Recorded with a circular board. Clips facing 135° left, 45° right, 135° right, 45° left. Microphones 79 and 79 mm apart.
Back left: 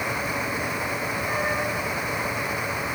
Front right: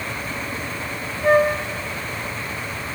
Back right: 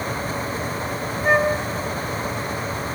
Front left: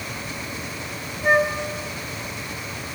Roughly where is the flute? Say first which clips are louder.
Front right 13 dB, back right 1 dB; ahead right.